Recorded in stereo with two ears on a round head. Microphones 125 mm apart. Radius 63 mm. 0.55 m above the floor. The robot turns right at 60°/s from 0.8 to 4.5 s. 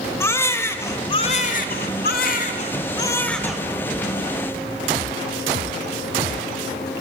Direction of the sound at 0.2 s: 20° left.